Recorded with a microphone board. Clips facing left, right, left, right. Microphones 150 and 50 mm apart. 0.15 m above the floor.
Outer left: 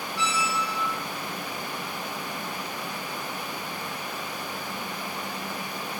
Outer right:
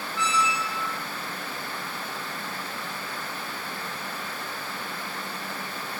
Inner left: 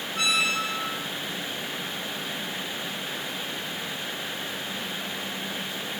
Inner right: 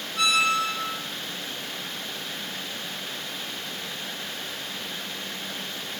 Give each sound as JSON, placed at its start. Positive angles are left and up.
{"t": 0.1, "sound": "a squeak", "side_deg": 40, "distance_m": 3.5}